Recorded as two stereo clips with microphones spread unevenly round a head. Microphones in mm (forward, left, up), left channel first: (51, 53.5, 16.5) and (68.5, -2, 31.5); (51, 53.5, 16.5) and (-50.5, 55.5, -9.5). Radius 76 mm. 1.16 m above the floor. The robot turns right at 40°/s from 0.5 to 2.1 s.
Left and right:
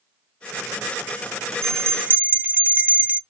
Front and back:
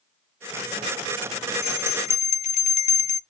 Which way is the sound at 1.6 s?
30° right.